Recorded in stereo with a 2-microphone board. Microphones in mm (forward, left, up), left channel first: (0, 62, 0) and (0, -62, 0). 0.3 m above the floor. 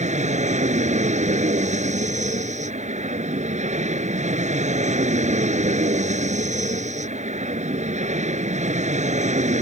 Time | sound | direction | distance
0.0 | an aircraft | 70° right (ahead or behind) | ?